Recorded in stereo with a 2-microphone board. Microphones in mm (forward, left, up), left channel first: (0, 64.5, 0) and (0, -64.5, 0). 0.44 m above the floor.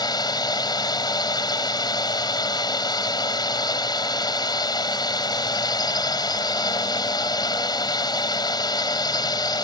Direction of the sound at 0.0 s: 35° left (ahead or behind).